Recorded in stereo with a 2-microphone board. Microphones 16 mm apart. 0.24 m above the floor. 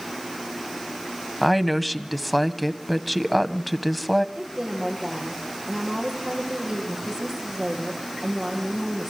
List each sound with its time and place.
1.4 s a woman speaking: centre (ahead or behind), 1.2 m
4.3 s a woman speaking: 30° right (ahead or behind), 8 m